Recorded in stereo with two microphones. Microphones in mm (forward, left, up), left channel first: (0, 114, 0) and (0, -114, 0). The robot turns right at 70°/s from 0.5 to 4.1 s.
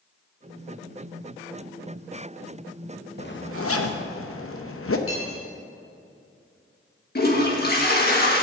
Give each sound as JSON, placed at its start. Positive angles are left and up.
{"t": 3.2, "sound": "a zipper", "azimuth_deg": 45, "distance_m": 0.8}
{"t": 5.1, "sound": "cutlery clinking", "side_deg": 80, "distance_m": 4.0}
{"t": 7.2, "sound": "a toilet flushing", "side_deg": 45, "distance_m": 1.6}